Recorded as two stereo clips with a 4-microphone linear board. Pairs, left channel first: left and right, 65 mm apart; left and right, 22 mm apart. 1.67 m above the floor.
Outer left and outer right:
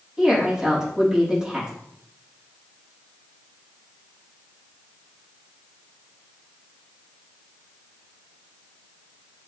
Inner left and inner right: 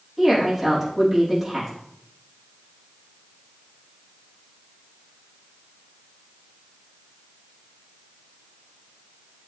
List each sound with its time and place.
0.2 s a woman speaking: 10° right (ahead or behind), 3 m